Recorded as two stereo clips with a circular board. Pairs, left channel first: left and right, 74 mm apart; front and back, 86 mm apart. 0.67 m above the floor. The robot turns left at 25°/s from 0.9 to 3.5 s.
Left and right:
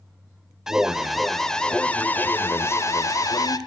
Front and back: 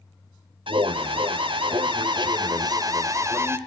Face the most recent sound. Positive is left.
turn(degrees=120)